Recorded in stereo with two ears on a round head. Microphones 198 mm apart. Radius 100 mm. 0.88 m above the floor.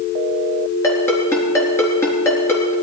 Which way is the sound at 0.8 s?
10° left (ahead or behind).